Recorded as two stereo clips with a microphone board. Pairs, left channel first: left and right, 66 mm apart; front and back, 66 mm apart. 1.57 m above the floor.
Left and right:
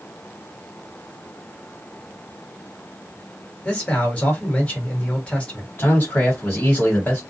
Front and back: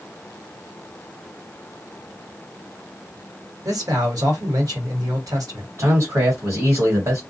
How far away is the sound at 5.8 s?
About 1.5 m.